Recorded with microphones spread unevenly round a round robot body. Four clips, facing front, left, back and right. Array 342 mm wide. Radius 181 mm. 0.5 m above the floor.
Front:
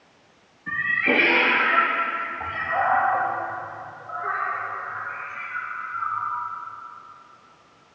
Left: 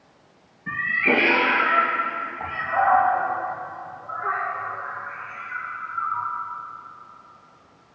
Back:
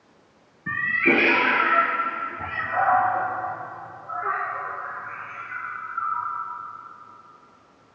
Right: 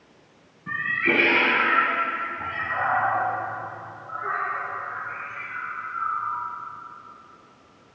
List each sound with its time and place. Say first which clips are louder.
0.7 s a cat meowing: left 2 dB, back 2 dB; 165° right, 2.5 m; by 6.3 s 150° right, 5 m